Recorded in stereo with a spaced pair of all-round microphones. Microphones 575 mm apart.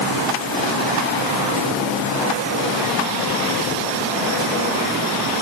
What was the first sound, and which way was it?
Only background noise.